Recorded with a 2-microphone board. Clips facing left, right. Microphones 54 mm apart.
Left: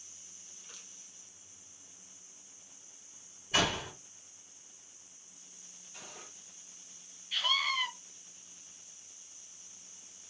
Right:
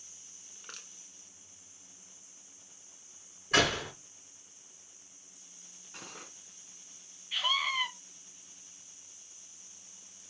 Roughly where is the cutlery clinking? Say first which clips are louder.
Right 3 dB; right.